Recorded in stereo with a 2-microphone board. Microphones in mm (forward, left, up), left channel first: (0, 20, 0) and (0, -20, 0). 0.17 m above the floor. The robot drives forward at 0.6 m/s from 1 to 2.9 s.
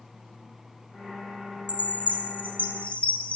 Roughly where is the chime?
Left.